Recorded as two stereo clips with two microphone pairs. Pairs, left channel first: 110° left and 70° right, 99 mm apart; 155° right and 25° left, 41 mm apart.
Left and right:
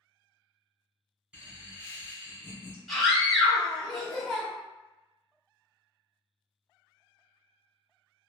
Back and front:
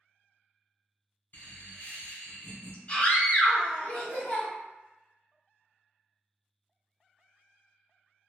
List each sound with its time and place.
1.3 s laughter: 145° right, 1.5 m
2.9 s a scream: 160° right, 1.1 m